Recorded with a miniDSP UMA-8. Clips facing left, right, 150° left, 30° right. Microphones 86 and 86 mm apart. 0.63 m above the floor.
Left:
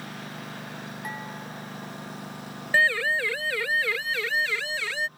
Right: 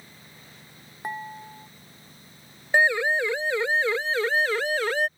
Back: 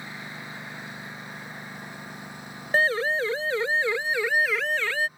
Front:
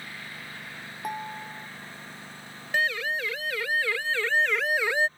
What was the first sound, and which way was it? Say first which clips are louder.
A lawn mower: left 13 dB, back 3 dB; 80° left.